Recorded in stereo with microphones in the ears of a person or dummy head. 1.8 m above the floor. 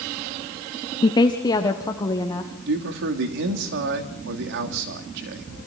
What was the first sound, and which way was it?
A woman speaking, 25° left (ahead or behind).